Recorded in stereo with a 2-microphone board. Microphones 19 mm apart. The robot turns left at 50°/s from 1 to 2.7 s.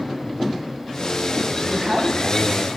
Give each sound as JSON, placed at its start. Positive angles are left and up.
{"t": 1.6, "sound": "a woman speaking", "side_deg": -25, "distance_m": 1.3}